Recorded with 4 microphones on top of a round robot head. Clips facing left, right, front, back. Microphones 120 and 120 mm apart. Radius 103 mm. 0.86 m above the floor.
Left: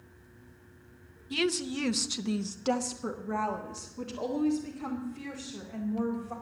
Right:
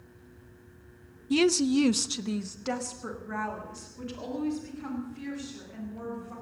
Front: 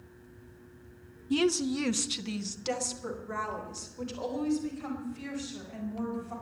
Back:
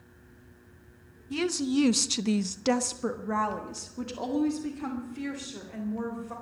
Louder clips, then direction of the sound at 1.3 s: Right 8 dB, even; 60° right.